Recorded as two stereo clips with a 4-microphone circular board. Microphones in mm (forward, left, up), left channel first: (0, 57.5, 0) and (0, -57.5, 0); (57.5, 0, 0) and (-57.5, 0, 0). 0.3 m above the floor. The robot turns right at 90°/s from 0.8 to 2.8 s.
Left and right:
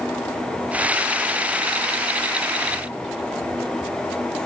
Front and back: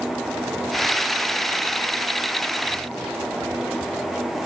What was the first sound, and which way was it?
Only background noise.